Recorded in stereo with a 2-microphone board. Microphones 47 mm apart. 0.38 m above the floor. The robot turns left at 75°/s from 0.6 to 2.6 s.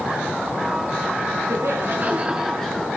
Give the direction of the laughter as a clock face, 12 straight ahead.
3 o'clock.